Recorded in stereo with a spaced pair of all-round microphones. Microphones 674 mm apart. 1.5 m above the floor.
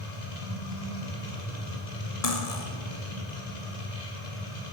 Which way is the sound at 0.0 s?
85° left.